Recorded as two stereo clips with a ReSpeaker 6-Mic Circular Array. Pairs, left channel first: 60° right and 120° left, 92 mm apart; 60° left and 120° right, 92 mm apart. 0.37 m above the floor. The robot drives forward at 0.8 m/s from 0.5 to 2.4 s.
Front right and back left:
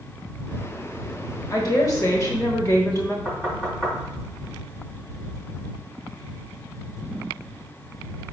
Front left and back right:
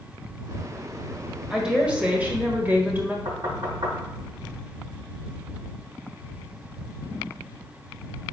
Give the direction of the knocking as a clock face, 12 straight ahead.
5 o'clock.